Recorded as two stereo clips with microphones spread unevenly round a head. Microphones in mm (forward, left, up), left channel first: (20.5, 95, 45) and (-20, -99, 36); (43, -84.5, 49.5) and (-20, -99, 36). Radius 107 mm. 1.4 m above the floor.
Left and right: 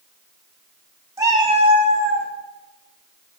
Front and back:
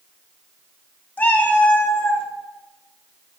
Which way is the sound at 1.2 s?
25° right.